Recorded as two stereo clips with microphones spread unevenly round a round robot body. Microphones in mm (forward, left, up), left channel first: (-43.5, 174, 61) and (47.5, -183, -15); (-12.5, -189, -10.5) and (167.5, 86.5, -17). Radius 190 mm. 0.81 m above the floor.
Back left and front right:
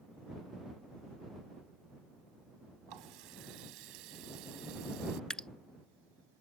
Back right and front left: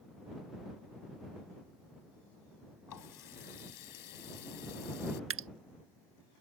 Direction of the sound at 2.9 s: 100° right.